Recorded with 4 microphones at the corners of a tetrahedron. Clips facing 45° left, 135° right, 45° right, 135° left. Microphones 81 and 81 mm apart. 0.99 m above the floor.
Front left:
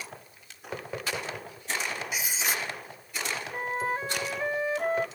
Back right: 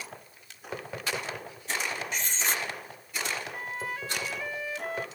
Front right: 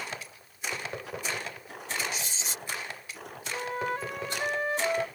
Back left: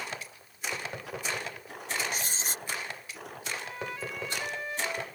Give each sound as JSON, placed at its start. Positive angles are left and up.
{"t": 2.1, "sound": "writing", "azimuth_deg": 125}
{"t": 3.5, "sound": "a flute", "azimuth_deg": -5}